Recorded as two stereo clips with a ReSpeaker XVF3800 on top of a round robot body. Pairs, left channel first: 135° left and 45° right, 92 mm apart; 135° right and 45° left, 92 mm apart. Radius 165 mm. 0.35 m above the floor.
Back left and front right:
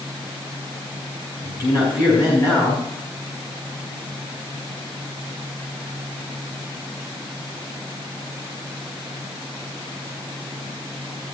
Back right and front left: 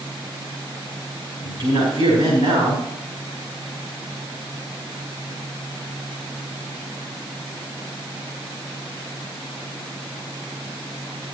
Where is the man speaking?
90° left, 5 m.